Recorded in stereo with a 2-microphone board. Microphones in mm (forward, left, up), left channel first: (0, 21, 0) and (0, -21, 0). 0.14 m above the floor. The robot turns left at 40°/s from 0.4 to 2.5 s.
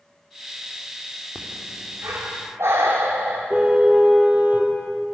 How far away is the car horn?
About 2 m.